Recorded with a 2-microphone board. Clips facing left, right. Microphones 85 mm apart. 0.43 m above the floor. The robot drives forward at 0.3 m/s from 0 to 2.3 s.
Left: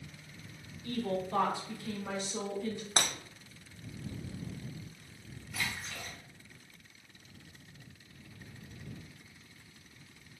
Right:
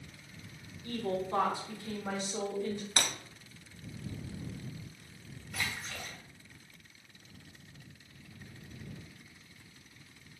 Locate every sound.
0.8 s a woman speaking: 25° right (ahead or behind), 1.0 m; by 2.9 s 30° right (ahead or behind), 1.0 m
3.0 s breaking glass: 25° left (ahead or behind), 0.5 m
5.5 s a splash: 45° right (ahead or behind), 1.4 m